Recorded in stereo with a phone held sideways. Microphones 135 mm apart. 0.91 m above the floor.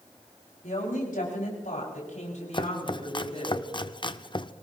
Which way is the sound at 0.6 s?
85° left.